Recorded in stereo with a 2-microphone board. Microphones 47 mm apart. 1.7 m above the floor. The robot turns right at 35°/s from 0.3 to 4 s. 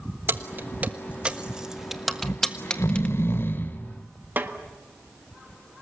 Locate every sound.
0.3 s keys jangling: 45° right (ahead or behind), 1.3 m; by 3.1 s 25° left (ahead or behind), 1.3 m
2.2 s snoring: 80° left, 1.5 m; by 3.8 s 135° left, 1.5 m
4.4 s a snare drum: 45° right (ahead or behind), 1.6 m